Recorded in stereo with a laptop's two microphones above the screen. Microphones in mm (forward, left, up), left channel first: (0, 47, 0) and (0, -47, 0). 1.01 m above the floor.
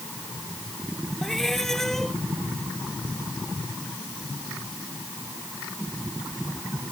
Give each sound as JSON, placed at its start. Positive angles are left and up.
{"t": 1.2, "sound": "a cat meowing", "side_deg": 5}